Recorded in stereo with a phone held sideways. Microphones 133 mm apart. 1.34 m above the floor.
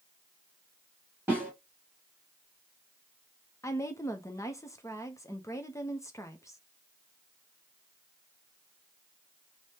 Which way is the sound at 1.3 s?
15° right (ahead or behind).